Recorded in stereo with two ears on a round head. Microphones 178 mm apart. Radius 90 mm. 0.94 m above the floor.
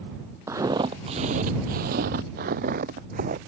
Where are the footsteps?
15° right (ahead or behind); by 3.4 s 45° right (ahead or behind).